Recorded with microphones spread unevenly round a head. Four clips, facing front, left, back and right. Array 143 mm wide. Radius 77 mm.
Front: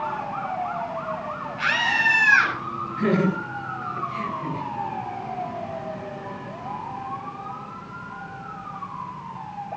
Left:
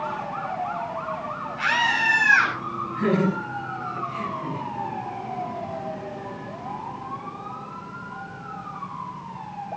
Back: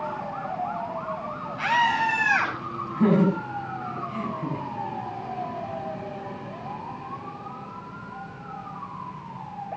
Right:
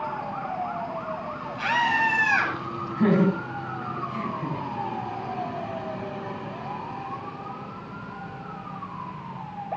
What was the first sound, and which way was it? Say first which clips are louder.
A scream: right 1 dB, back 3 dB; 140° right.